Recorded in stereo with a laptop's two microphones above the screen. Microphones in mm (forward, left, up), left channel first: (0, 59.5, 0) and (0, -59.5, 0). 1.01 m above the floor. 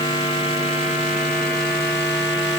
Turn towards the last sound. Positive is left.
No sound to turn to.